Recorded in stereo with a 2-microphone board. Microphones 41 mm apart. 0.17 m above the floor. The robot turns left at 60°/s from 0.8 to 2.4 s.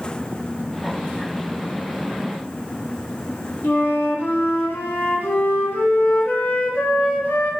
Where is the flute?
55° left (ahead or behind), 0.5 m.